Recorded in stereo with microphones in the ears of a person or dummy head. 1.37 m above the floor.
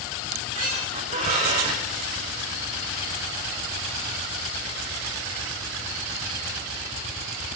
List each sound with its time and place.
0.2 s a squeak: 40° right (ahead or behind), 5 m